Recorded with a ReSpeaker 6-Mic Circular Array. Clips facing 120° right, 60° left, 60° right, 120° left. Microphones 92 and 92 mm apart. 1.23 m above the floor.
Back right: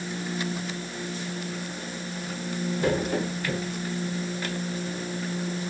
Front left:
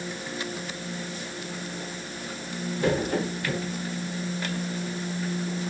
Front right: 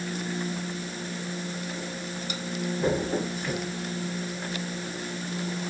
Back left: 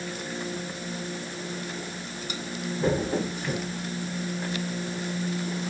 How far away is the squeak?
No squeak in this recording.